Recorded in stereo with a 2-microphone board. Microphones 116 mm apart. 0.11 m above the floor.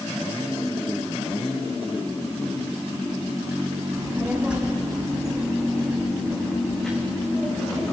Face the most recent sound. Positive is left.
turn(degrees=10)  # may be behind; listen again after turning